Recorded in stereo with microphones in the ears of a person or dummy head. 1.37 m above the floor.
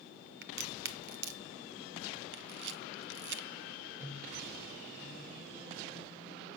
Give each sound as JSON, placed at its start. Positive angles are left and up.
{"t": 0.4, "sound": "a crack", "side_deg": -60, "distance_m": 0.7}
{"t": 2.3, "sound": "a camera shutter", "side_deg": -60, "distance_m": 0.7}
{"t": 4.0, "sound": "a microwave", "side_deg": -10, "distance_m": 6.0}